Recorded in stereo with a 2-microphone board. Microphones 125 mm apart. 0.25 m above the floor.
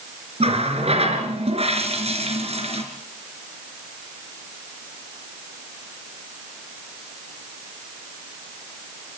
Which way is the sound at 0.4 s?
55° right (ahead or behind).